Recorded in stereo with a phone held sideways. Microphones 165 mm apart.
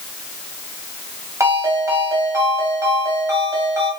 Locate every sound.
1.4 s a ringtone: 20° right (ahead or behind), 2.5 m